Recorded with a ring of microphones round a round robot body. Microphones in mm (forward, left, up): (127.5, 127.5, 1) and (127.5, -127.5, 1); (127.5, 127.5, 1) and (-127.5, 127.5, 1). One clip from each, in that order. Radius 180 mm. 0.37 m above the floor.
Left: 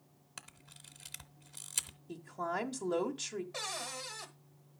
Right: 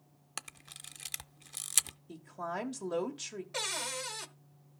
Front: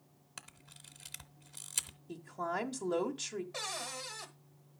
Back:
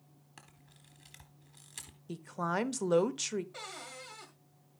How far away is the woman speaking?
About 0.9 m.